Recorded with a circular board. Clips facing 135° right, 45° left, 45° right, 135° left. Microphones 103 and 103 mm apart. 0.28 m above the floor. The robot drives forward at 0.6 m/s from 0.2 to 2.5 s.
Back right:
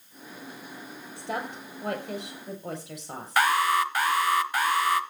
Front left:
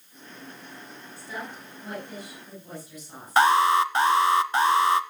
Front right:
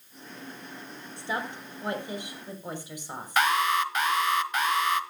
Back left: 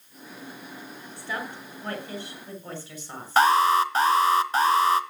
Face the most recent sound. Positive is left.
turn(degrees=95)